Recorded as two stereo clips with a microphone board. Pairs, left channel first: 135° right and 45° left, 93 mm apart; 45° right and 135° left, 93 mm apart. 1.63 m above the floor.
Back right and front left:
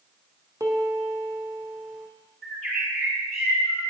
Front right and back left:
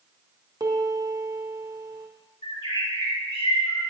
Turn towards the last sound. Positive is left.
turn(degrees=-50)